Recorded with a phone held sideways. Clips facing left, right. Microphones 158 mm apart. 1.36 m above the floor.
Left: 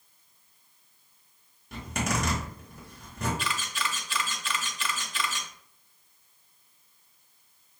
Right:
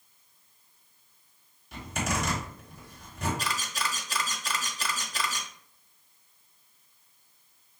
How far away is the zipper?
About 2 m.